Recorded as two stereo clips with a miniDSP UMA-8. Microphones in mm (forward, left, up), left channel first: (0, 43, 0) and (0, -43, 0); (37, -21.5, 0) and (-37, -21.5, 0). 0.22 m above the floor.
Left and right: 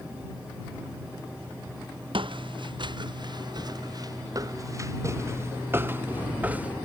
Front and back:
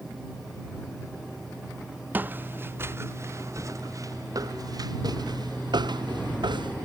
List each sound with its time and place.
2.1 s footsteps: 115° right; by 6.8 s 165° right